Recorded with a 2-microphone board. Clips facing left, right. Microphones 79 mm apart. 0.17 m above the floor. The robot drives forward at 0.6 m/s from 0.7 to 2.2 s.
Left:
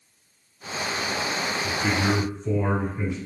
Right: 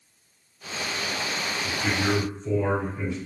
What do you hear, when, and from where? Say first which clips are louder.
1.6 s a man speaking: left 1 dB; 25° left (ahead or behind), 1.4 m